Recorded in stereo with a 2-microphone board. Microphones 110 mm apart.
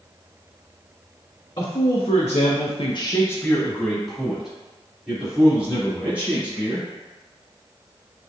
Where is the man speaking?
45° left (ahead or behind), 1.1 m; by 6.9 s 10° right (ahead or behind), 4 m.